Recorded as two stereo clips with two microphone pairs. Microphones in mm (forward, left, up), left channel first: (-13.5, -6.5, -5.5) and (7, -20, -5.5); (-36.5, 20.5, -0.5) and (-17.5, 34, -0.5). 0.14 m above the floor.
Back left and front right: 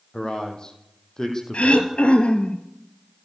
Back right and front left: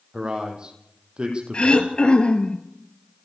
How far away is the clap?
No clap in this recording.